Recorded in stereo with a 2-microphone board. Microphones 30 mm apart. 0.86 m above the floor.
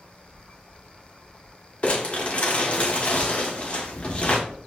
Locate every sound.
1.8 s crumpling: 45° left (ahead or behind), 1.1 m